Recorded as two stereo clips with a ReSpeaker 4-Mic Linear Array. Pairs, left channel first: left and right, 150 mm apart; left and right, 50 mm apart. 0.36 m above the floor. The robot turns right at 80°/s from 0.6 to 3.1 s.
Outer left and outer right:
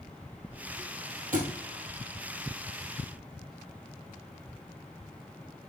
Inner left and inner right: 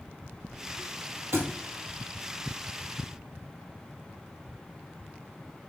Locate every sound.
1.3 s a thud: 65° right (ahead or behind), 1.7 m; by 1.5 s 50° right (ahead or behind), 1.7 m